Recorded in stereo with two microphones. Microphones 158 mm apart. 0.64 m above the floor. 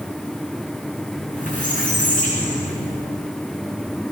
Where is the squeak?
55° left (ahead or behind), 7 m.